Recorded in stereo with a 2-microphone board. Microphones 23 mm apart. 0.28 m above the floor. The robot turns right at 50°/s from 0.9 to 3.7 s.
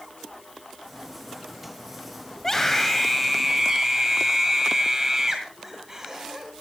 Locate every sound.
2.4 s a scream: 145° left, 1.8 m; by 6.5 s 150° right, 1.8 m